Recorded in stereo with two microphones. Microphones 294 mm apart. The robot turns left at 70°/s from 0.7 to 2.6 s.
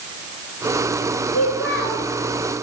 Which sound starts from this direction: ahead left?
A child speaking, at 1.3 s.